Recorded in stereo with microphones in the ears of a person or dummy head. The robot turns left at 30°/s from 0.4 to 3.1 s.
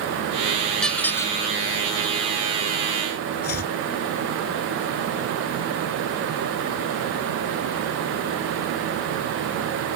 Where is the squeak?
Centre (ahead or behind); by 1.4 s 15° left (ahead or behind).